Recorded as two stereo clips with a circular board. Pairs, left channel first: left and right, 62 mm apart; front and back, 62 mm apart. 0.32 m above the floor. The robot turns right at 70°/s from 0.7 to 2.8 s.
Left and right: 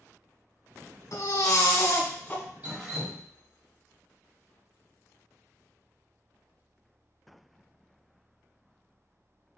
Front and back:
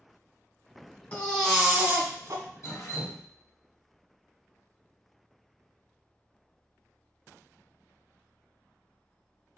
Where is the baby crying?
60° left, 1.2 m; by 2.4 s 155° left, 1.2 m.